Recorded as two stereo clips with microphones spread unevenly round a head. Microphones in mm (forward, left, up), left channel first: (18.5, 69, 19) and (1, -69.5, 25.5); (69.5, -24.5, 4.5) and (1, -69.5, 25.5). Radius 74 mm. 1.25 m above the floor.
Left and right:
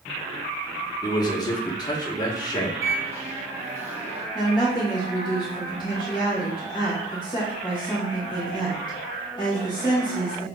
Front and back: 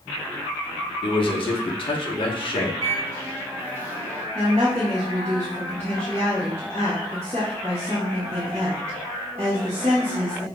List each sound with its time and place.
1.0 s a man speaking: 20° left, 1.1 m
2.8 s a microwave: 25° right, 2.5 m
4.3 s a woman speaking: 145° left, 1.9 m